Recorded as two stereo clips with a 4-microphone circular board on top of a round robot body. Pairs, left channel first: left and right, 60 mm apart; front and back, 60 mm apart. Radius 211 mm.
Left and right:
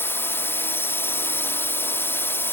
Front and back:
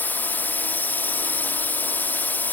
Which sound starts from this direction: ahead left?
A drone, at 0.0 s.